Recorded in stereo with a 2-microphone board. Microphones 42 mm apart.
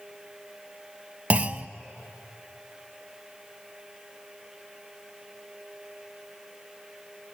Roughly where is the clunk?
Right.